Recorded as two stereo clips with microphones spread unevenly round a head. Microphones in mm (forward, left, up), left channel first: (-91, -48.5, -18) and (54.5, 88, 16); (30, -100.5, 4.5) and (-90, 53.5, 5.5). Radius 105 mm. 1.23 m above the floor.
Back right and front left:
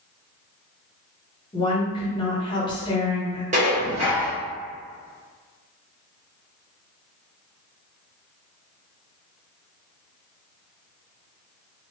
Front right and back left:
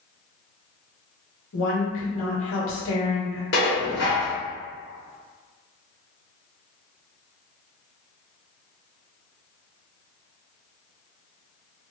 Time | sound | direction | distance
1.5 | a woman speaking | 65° right | 1.8 m
3.5 | dishes clattering | 10° right | 1.2 m